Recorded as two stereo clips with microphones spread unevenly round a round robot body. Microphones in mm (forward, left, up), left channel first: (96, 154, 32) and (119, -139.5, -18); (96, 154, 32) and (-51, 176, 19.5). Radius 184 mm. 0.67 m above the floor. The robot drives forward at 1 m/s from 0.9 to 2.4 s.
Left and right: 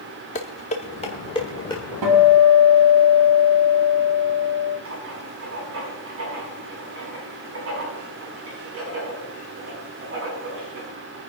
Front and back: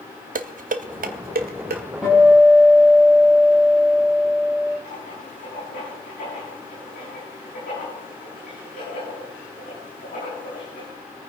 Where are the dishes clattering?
170° left, 0.7 m; by 1.8 s 175° left, 1.6 m.